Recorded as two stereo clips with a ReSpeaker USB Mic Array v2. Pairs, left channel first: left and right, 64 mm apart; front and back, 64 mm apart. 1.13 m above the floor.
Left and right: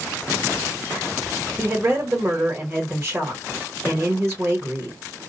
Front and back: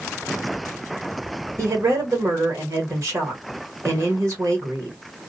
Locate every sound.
1.6 s a woman speaking: 145° right, 1.2 m